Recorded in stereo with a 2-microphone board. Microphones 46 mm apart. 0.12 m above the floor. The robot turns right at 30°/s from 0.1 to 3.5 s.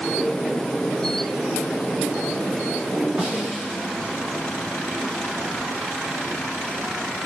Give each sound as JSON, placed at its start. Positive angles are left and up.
{"t": 3.2, "sound": "a snare drum", "side_deg": -30, "distance_m": 8.0}